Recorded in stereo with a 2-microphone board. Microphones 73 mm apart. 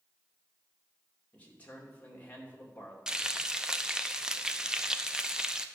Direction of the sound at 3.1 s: 10° right (ahead or behind).